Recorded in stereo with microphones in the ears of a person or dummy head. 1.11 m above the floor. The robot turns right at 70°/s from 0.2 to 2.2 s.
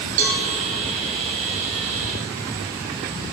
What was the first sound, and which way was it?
A cowbell, 45° right (ahead or behind).